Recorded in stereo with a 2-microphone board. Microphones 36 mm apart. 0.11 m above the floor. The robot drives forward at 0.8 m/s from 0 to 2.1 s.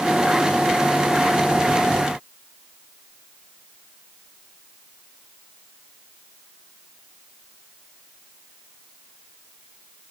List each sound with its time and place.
Only background noise.